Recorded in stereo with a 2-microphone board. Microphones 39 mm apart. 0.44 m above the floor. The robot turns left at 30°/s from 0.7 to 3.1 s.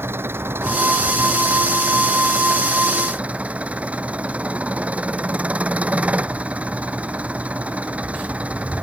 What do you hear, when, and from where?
0.0 s an engine running: 70° right; by 8.8 s 145° right